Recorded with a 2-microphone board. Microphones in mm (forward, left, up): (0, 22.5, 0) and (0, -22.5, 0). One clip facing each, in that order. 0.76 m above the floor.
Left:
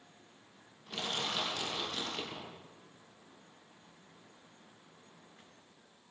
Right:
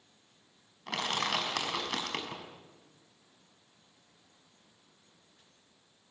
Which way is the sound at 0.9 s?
85° right.